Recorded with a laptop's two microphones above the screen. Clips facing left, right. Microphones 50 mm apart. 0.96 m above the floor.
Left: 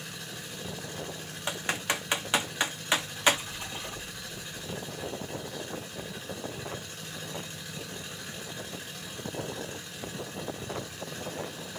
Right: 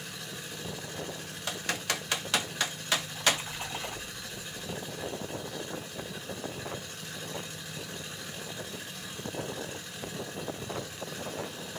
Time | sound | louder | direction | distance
1.5 | typing on a keyboard | left 2 dB | 20° left (ahead or behind) | 0.7 m
3.0 | a splash | left 3 dB | 40° right (ahead or behind) | 3.5 m